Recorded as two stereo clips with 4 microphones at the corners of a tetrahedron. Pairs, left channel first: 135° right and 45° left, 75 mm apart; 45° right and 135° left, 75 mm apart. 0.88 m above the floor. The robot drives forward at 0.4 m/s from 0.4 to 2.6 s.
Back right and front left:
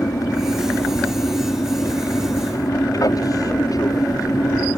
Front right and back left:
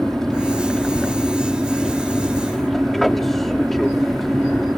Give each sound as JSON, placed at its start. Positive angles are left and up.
{"t": 0.0, "sound": "an aircraft", "azimuth_deg": -130}